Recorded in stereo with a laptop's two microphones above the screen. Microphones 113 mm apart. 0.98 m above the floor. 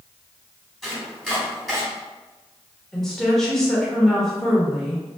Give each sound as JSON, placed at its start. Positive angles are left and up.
{"t": 0.8, "sound": "chopping", "side_deg": 0, "distance_m": 1.5}
{"t": 2.9, "sound": "a woman speaking", "side_deg": 5, "distance_m": 1.2}